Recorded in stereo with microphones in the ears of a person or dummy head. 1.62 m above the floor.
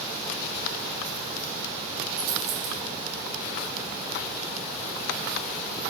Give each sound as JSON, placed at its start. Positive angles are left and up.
{"t": 2.2, "sound": "a dropped coin", "side_deg": -75, "distance_m": 5.5}